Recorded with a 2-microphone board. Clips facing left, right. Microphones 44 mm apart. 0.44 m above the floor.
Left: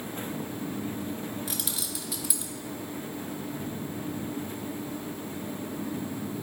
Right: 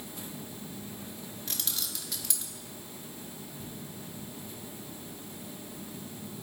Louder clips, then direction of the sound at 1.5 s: Left 4 dB; 5° left (ahead or behind).